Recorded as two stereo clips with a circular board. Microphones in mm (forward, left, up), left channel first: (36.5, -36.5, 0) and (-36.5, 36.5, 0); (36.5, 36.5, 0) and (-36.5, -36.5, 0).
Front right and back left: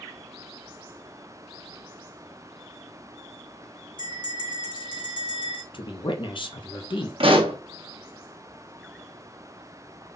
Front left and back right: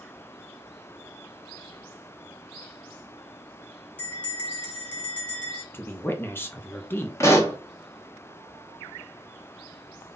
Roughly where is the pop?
Left.